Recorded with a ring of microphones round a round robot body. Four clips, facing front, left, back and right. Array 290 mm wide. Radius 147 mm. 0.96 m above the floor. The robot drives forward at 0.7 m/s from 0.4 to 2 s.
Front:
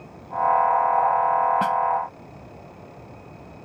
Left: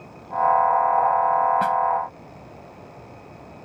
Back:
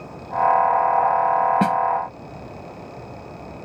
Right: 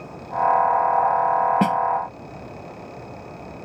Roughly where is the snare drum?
Behind right.